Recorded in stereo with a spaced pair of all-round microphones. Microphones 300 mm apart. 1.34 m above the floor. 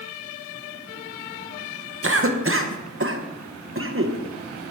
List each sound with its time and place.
2.0 s a cough: 45° right (ahead or behind), 0.9 m